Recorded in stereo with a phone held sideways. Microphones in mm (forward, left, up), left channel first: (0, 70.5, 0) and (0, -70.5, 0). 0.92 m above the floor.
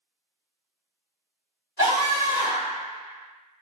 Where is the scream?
45° right (ahead or behind), 1.7 m.